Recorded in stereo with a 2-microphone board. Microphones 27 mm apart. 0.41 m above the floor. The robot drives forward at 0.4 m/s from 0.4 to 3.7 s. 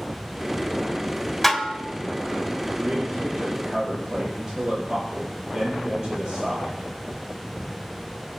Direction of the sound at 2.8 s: 30° right (ahead or behind).